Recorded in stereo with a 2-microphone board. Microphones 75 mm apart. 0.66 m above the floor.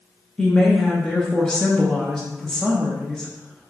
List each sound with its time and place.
0.4 s a woman speaking: 10° left (ahead or behind), 0.7 m